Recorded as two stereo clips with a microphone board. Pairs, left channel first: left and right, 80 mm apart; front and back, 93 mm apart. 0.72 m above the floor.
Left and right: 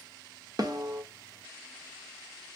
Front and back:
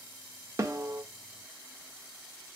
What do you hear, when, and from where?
0.6 s a snare drum: 125° right, 1.1 m